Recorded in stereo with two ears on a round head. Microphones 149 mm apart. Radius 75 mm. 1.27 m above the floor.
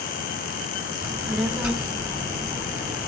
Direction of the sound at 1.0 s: 5° right (ahead or behind).